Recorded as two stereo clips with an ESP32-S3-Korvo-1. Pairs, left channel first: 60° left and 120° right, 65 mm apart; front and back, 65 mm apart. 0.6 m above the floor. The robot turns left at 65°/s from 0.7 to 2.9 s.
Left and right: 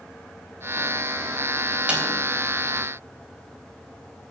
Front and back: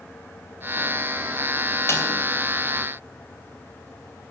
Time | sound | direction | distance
1.9 | a snare drum | 45° right | 3.5 m